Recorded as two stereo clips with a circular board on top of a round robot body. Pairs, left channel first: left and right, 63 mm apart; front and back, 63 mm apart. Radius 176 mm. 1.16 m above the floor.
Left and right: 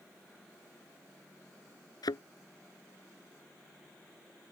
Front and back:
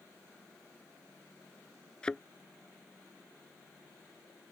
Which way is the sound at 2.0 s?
80° left.